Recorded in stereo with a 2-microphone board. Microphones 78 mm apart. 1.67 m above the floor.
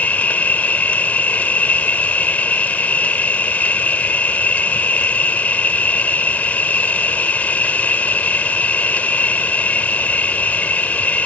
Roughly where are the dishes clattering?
I don't hear dishes clattering.